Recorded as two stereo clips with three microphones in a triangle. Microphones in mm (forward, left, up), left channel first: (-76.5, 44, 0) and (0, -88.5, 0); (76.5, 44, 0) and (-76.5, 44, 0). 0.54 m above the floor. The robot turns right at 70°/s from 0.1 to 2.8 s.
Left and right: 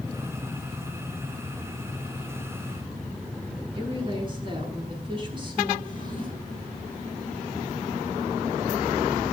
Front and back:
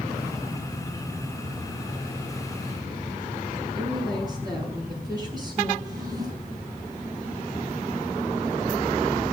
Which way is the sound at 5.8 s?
115° right.